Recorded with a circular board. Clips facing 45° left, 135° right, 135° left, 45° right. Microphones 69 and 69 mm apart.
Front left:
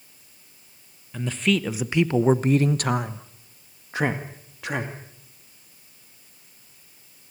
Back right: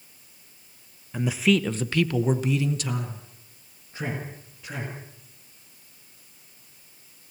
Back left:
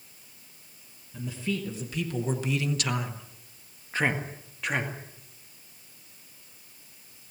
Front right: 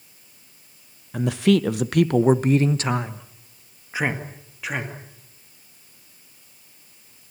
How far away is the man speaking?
About 1.2 m.